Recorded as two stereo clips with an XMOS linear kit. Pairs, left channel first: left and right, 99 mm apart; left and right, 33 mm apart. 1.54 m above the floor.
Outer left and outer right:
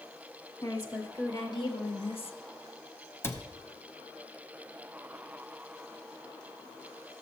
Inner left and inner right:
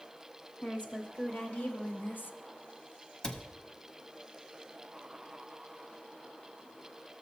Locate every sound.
0.6 s a woman speaking: 40° left (ahead or behind), 2 m; by 2.4 s 70° left (ahead or behind), 0.5 m
3.2 s a cupboard door: 25° left (ahead or behind), 0.7 m